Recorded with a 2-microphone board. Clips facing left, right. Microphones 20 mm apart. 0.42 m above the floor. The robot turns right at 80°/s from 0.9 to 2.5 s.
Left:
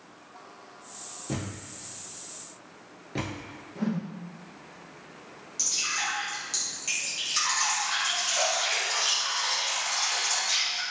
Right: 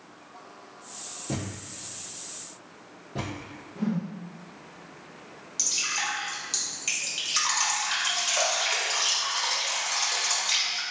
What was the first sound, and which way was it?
A thud, centre (ahead or behind).